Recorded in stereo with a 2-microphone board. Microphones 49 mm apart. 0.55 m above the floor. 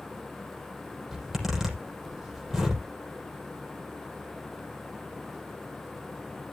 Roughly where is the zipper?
Centre.